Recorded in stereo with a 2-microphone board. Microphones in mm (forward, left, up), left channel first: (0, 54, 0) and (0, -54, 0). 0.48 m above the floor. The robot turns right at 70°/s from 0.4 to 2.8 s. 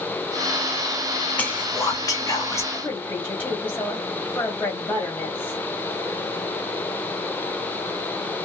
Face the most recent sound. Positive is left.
turn(degrees=20)  # may be behind; listen again after turning